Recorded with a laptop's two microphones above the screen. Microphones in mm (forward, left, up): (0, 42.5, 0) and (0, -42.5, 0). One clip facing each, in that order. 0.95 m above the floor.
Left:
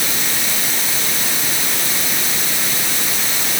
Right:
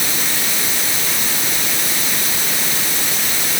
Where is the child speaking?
I don't hear a child speaking.